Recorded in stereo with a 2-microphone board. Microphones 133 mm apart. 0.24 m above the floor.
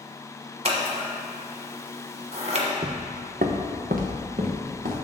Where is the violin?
I don't hear a violin.